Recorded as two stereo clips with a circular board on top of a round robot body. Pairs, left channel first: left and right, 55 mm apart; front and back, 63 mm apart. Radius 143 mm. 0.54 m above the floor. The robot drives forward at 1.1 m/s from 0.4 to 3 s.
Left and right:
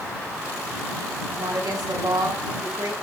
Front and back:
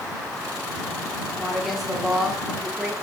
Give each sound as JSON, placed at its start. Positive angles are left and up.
{"t": 1.4, "sound": "a woman speaking", "azimuth_deg": -85, "distance_m": 7.5}